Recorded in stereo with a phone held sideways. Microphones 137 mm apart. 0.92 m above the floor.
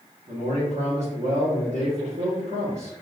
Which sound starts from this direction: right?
A man speaking, at 0.3 s.